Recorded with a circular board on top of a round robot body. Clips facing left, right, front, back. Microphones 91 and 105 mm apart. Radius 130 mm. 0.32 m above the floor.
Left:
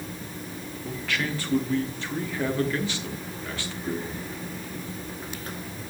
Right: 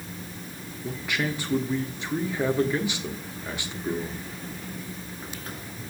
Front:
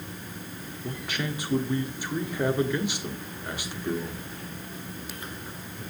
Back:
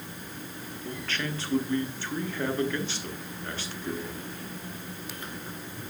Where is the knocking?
No knocking in this recording.